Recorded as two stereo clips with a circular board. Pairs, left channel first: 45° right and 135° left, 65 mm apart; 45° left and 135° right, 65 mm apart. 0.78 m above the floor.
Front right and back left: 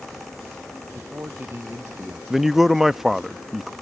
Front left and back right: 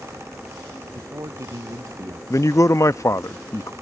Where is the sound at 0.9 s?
170° right.